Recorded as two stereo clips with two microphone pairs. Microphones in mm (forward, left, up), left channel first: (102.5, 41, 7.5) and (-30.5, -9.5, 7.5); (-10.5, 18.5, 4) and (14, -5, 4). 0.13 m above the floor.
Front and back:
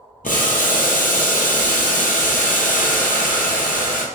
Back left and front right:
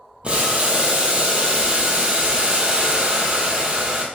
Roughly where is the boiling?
Ahead.